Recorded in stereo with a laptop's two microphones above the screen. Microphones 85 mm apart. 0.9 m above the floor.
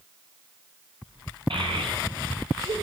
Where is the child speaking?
75° right (ahead or behind), 3.5 m; by 2.7 s 70° right (ahead or behind), 2.0 m.